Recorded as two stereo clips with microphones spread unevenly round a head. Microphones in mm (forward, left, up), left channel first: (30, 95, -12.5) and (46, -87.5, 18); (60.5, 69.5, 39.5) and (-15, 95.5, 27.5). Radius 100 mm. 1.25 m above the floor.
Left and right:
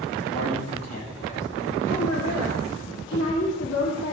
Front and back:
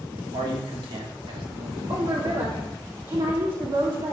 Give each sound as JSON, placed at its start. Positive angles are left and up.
{"t": 0.3, "sound": "a man speaking", "azimuth_deg": 160, "distance_m": 4.0}
{"t": 1.9, "sound": "a woman speaking", "azimuth_deg": 130, "distance_m": 2.5}